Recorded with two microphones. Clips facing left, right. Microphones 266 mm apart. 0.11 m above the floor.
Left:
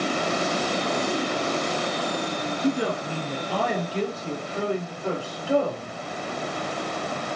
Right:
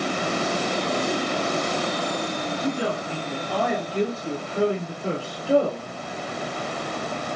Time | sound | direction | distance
2.6 | a woman speaking | 25° left (ahead or behind) | 1.3 m